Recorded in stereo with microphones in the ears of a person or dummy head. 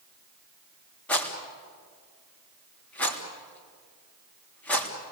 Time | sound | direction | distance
1.1 | a rattle | 5° left (ahead or behind) | 3 m